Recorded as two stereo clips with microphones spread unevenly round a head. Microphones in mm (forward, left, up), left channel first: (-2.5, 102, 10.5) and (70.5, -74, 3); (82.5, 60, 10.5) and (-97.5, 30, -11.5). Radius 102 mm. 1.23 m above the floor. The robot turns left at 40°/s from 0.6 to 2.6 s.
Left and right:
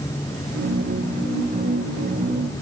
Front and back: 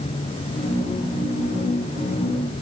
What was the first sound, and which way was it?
Only background noise.